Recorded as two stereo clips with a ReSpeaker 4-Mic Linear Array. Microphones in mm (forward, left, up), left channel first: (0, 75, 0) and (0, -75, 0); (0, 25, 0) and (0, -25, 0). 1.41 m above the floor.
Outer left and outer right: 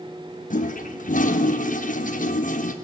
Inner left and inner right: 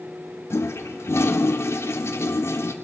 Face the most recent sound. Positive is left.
turn(degrees=60)  # may be behind; listen again after turning